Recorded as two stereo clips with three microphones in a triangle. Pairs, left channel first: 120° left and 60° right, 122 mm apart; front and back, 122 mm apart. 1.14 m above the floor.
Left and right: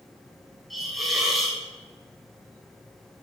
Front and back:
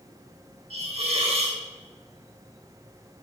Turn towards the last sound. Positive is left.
turn(degrees=-150)